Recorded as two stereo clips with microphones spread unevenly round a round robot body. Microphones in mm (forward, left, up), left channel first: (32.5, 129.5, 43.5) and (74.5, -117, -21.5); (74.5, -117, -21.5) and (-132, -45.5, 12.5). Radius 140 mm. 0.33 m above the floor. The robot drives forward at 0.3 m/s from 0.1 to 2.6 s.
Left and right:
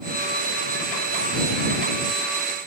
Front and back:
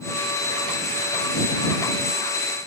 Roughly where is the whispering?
No whispering in this recording.